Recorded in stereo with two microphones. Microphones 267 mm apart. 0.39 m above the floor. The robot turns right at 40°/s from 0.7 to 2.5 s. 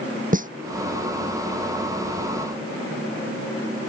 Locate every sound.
0.3 s a snare drum: 30° right (ahead or behind)